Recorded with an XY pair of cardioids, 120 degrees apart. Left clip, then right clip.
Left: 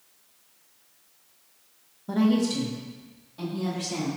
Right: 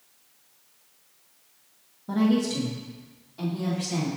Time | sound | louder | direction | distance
2.1 | a woman speaking | even | 5° left | 0.8 m